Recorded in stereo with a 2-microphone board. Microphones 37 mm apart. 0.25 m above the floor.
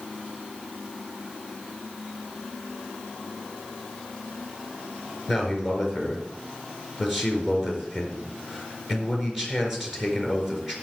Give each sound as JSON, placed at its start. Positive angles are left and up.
{"t": 5.3, "sound": "a man speaking", "side_deg": -10, "distance_m": 4.5}